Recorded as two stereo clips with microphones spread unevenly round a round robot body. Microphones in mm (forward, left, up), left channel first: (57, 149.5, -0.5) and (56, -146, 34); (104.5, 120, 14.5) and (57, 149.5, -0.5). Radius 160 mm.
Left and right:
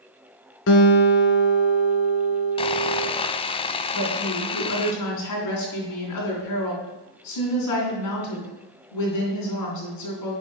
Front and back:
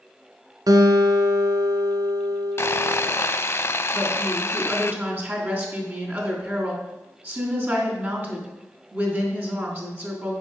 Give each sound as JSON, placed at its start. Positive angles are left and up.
{"t": 0.7, "sound": "a guitar", "azimuth_deg": 145, "distance_m": 1.0}
{"t": 2.6, "sound": "sawing", "azimuth_deg": 15, "distance_m": 0.5}
{"t": 3.9, "sound": "a woman speaking", "azimuth_deg": 95, "distance_m": 3.5}